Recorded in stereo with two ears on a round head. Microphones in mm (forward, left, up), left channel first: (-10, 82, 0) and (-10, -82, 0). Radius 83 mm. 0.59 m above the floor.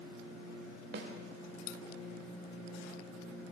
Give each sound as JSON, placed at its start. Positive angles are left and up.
{"t": 0.9, "sound": "a snare drum", "side_deg": -60, "distance_m": 1.4}